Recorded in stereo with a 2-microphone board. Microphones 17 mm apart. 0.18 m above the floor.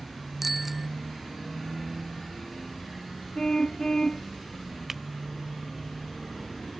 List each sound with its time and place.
0.4 s a bicycle bell: 10° right (ahead or behind)
3.4 s a car horn: 50° left (ahead or behind)
4.9 s breaking glass: 15° right (ahead or behind)